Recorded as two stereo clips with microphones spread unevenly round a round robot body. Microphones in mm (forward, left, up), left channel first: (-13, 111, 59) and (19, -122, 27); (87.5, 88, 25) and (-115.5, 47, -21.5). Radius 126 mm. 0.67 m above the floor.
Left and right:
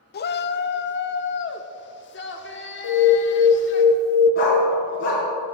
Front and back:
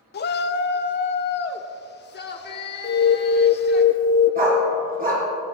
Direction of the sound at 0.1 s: 55° left.